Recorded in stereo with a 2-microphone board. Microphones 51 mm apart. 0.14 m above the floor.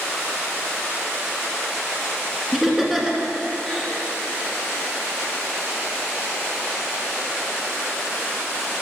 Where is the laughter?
10° right (ahead or behind), 1.5 m.